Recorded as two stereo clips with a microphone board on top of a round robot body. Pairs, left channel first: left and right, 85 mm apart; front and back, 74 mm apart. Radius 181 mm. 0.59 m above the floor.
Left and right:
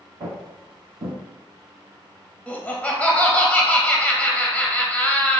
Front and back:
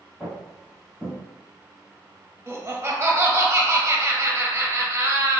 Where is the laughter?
155° left, 0.9 m.